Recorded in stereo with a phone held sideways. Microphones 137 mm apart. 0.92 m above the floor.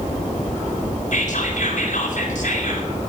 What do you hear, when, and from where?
1.1 s whispering: 60° left (ahead or behind), 4 m